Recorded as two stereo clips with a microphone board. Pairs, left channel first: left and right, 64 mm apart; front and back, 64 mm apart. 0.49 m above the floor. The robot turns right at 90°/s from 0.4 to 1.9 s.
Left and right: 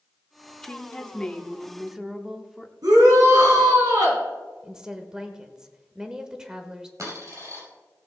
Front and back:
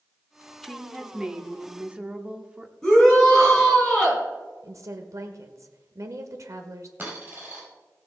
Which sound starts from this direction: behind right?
A dropped coin, at 7.0 s.